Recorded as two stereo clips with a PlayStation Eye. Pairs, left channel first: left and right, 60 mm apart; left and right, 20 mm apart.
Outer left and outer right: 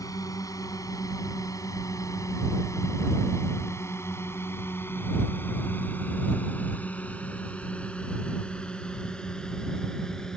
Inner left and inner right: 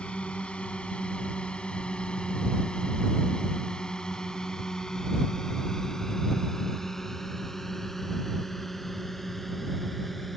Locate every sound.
0.0 s a drone: 80° left; by 10.4 s 10° left (ahead or behind)